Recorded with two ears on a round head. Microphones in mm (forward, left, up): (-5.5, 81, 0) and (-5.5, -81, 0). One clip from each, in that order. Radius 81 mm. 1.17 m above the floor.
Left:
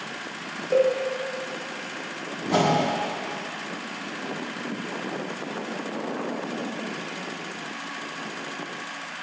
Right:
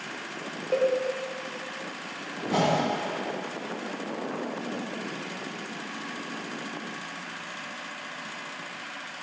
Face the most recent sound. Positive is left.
turn(degrees=20)  # may be behind; listen again after turning